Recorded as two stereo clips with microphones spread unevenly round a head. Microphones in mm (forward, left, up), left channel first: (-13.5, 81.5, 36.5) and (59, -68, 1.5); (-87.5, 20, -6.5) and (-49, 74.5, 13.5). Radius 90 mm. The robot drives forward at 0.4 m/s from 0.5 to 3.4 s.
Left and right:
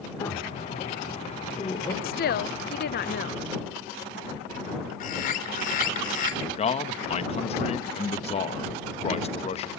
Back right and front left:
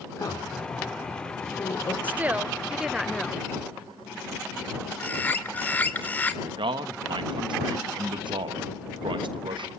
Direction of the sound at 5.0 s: 165° left.